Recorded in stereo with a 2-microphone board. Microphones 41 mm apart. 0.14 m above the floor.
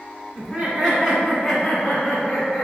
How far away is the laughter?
About 1.5 m.